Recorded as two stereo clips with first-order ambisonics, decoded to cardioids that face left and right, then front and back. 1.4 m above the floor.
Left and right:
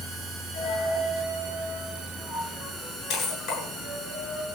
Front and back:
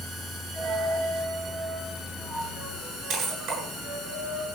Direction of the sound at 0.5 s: 130° left.